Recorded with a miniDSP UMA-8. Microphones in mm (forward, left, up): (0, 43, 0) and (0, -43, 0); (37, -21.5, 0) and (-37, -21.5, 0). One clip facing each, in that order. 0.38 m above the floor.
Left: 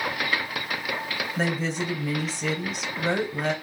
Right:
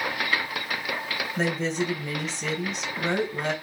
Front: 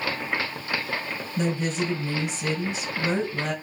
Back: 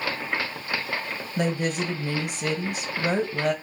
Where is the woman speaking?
175° left, 2 m.